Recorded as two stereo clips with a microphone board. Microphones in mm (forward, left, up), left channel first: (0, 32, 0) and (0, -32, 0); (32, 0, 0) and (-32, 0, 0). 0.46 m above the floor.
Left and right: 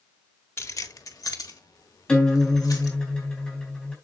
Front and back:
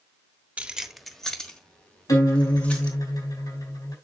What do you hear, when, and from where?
0.6 s keys jangling: 120° left, 0.8 m; by 3.0 s 65° left, 4 m
2.1 s a guitar: 15° left, 4 m